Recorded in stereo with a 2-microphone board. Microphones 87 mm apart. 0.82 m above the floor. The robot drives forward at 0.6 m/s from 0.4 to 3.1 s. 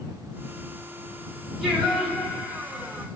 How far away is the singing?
About 1.5 m.